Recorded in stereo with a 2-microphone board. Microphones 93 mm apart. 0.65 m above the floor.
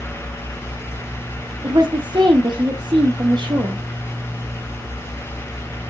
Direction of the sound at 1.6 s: 50° right (ahead or behind).